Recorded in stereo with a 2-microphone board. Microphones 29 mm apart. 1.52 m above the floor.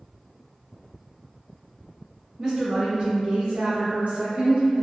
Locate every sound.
2.4 s a woman speaking: 25° right (ahead or behind), 0.8 m; by 4.8 s 45° right (ahead or behind), 0.9 m